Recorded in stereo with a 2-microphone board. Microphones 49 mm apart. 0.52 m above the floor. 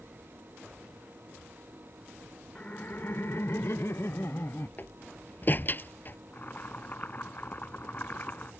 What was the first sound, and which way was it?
Laughter, 25° left (ahead or behind).